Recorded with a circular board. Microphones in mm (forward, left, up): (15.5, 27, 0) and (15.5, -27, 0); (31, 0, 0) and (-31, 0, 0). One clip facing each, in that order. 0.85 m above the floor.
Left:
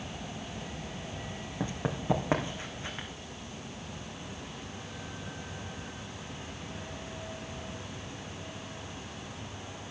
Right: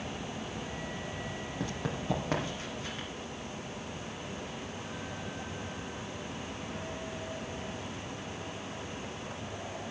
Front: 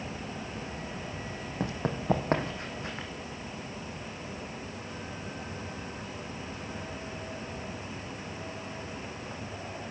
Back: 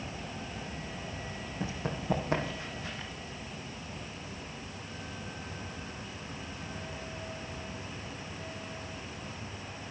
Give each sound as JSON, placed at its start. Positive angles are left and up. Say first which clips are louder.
{"t": 1.6, "sound": "running footsteps", "louder": "left 3 dB, front 4 dB", "azimuth_deg": 25, "distance_m": 2.0}